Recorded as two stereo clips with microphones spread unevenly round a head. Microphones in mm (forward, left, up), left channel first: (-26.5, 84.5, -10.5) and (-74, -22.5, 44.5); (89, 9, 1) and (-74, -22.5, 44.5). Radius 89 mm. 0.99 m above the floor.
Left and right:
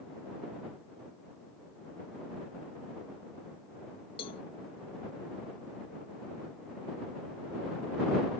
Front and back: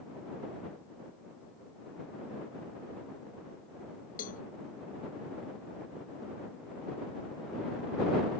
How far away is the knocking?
I don't hear knocking.